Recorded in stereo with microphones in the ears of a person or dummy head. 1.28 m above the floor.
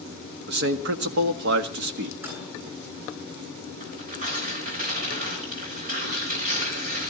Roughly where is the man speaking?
Right.